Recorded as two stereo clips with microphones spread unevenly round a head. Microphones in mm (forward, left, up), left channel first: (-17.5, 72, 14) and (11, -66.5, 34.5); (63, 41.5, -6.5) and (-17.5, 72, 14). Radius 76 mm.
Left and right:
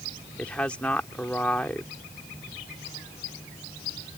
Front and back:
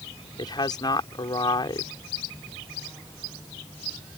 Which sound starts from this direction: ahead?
A woman speaking, at 0.4 s.